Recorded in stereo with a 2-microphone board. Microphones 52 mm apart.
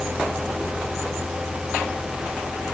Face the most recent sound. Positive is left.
No sound to turn to.